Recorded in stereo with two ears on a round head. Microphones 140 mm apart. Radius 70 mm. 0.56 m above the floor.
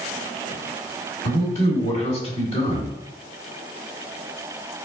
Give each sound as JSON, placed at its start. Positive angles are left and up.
{"t": 1.2, "sound": "a man speaking", "side_deg": 40, "distance_m": 1.7}